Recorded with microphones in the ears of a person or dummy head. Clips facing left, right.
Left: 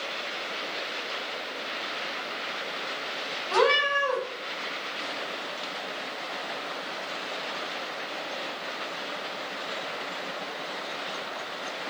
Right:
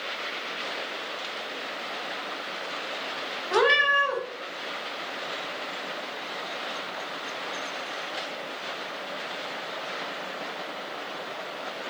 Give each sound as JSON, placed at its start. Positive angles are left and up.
{"t": 3.5, "sound": "a cat meowing", "side_deg": -10, "distance_m": 1.3}